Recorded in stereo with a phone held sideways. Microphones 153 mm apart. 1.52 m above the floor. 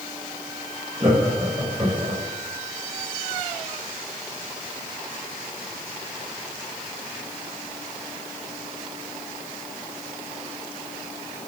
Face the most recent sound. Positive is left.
turn(degrees=-30)  # may be behind; listen again after turning